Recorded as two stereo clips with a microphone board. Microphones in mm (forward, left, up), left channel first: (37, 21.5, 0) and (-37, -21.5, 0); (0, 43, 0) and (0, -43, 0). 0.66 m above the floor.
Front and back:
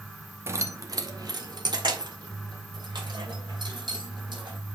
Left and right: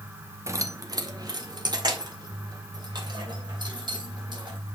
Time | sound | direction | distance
0.5 | keys jangling | 115° right | 0.7 m